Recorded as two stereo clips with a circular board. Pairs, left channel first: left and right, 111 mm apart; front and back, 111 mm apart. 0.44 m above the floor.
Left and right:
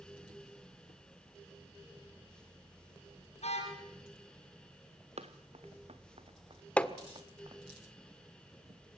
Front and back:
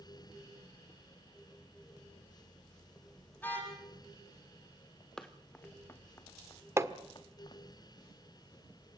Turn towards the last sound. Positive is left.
turn(degrees=155)